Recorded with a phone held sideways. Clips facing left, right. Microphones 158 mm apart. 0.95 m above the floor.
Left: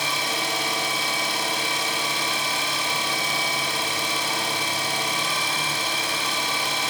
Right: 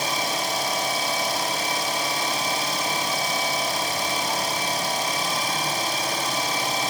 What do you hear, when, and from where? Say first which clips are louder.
0.0 s an engine running: right 2 dB; 40° right (ahead or behind), 4.5 m